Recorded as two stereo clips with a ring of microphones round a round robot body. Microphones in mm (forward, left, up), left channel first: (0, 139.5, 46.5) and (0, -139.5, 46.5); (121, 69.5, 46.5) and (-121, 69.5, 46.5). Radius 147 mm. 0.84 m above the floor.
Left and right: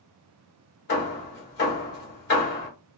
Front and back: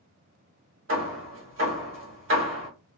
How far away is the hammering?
About 1.3 m.